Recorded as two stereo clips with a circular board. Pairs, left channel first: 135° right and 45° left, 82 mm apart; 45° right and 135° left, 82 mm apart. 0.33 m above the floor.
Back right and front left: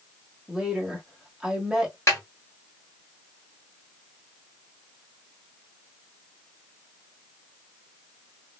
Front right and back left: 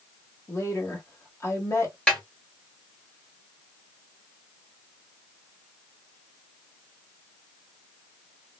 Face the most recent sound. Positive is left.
turn(degrees=-115)